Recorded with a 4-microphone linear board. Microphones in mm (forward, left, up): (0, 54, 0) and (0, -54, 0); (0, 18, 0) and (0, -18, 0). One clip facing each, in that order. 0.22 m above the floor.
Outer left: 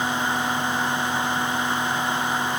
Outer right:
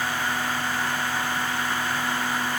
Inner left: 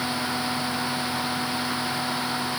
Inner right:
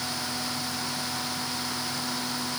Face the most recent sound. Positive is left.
No sound to turn to.